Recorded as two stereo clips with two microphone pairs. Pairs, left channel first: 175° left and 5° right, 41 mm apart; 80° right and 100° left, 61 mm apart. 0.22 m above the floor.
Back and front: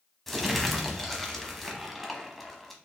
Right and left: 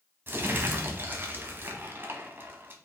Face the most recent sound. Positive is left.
turn(degrees=90)